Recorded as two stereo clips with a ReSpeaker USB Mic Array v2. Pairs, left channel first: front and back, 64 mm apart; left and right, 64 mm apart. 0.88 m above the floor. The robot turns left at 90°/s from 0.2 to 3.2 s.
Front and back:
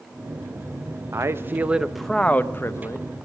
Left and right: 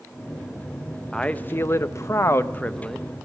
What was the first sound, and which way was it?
A man speaking, 165° left.